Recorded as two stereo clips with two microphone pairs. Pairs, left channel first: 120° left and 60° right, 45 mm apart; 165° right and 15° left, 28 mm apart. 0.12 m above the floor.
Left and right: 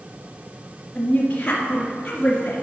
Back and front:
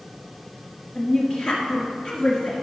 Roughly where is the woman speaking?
Behind.